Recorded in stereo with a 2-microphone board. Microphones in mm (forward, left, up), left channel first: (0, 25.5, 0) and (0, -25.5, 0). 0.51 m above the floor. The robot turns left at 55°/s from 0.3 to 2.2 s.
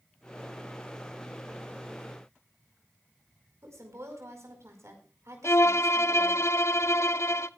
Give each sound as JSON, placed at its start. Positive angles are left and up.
{"t": 3.6, "sound": "a woman speaking", "side_deg": -75, "distance_m": 5.0}
{"t": 5.4, "sound": "a violin", "side_deg": 65, "distance_m": 0.5}